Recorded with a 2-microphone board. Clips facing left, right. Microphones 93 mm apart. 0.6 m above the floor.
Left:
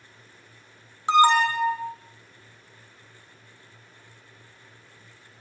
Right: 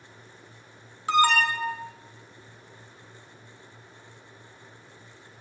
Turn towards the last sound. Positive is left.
turn(degrees=25)  # may be behind; listen again after turning